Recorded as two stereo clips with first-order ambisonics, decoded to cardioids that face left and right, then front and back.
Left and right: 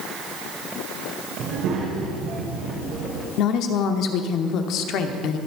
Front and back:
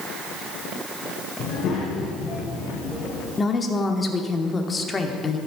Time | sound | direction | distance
1.4 | a child speaking | 50° right | 1.8 m
3.4 | a woman speaking | 70° left | 1.0 m